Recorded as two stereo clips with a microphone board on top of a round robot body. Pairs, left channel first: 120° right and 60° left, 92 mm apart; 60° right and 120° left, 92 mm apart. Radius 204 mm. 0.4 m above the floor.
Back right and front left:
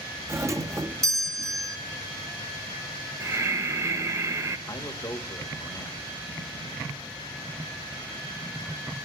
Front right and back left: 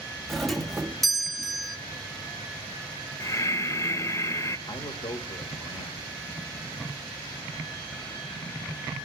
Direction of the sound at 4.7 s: 65° right.